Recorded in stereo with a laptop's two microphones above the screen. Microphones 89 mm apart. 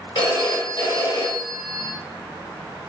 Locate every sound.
0.1 s a phone ringing: 60° left (ahead or behind), 1.0 m